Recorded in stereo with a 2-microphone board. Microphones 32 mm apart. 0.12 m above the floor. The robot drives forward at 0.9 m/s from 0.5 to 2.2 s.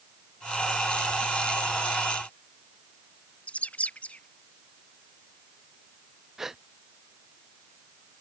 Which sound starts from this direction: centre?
A gasp, at 6.4 s.